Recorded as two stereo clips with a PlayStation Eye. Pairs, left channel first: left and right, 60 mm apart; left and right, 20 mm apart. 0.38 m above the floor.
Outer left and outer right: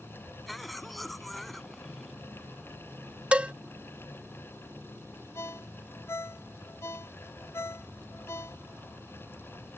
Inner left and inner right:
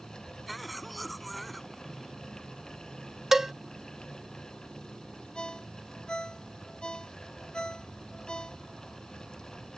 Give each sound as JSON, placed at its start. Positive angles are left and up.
{"t": 0.5, "sound": "a cough", "side_deg": 0}
{"t": 3.3, "sound": "a cowbell", "side_deg": -20}
{"t": 5.3, "sound": "a ringtone", "side_deg": 55}